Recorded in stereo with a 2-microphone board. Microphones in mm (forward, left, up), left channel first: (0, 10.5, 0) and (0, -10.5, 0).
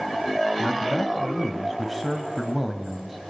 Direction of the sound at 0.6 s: 5° right (ahead or behind).